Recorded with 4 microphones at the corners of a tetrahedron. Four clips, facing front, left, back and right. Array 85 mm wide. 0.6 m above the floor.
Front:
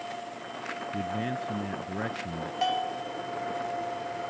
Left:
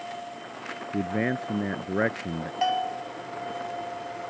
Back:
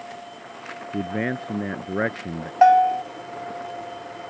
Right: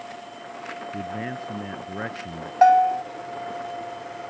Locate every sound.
0.9 s a man speaking: 145° left
2.6 s a bell: 145° right